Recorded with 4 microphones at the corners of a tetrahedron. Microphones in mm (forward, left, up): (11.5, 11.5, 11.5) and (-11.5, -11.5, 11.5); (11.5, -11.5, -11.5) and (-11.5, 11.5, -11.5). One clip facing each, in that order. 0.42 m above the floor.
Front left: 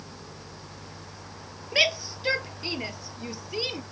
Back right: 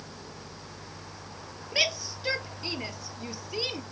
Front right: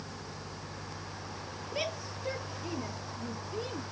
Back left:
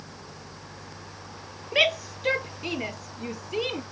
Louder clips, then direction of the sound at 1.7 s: Front left 4 dB, back left 14 dB; 115° left.